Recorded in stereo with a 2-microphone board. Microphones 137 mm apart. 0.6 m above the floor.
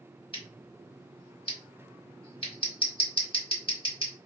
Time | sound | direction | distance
0.3 | scissors | 40° left (ahead or behind) | 1.4 m